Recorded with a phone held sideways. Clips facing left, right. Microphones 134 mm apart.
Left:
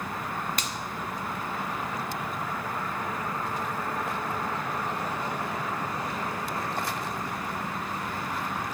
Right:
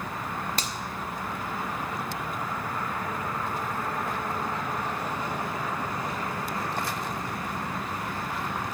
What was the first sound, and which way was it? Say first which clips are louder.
A finger snap: right 1 dB; 30° right (ahead or behind).